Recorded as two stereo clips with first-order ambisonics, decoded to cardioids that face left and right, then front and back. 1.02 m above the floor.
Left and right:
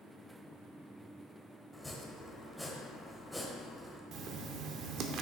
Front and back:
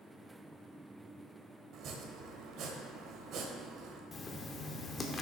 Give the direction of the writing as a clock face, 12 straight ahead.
2 o'clock.